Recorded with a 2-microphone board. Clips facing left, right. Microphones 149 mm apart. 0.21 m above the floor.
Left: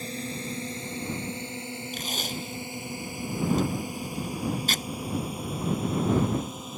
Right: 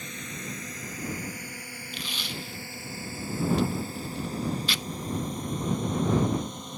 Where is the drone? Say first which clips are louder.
Left 5 dB; 30° left (ahead or behind); by 6.8 s 5° left (ahead or behind).